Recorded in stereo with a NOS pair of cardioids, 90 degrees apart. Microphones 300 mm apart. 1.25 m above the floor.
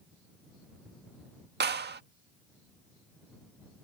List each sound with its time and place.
1.6 s a clap: 35° right